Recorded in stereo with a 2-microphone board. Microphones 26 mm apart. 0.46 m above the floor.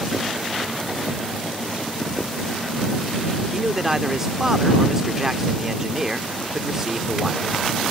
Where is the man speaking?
20° right (ahead or behind).